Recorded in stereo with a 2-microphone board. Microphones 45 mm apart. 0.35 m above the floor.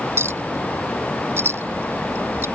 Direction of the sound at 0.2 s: 65° right (ahead or behind).